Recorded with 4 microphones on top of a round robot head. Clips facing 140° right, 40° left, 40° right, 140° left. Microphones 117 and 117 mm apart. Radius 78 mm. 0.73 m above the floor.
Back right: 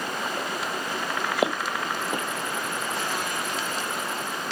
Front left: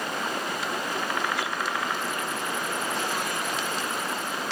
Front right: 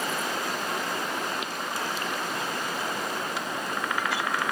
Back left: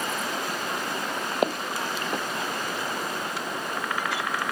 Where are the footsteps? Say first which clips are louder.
Back right 4 dB, back left 5 dB; 170° right.